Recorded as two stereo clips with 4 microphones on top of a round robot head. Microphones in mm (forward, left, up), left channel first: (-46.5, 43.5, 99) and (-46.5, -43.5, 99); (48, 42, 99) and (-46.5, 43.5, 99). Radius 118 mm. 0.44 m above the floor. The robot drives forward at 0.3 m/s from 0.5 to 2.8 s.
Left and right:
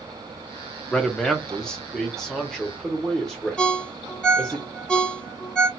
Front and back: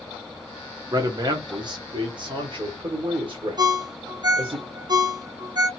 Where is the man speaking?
165° left, 0.8 m; by 4.6 s 175° left, 1.2 m.